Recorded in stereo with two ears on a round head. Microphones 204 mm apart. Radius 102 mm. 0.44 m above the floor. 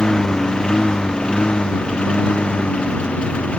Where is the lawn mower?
5° left (ahead or behind).